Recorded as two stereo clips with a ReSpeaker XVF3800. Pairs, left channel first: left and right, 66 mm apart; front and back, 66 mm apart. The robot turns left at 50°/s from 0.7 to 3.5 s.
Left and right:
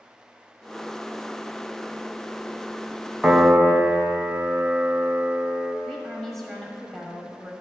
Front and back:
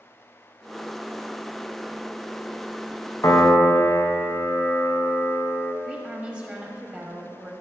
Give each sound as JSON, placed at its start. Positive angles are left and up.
{"t": 3.2, "sound": "a piano", "azimuth_deg": -5, "distance_m": 0.8}
{"t": 5.8, "sound": "a woman speaking", "azimuth_deg": 165, "distance_m": 1.1}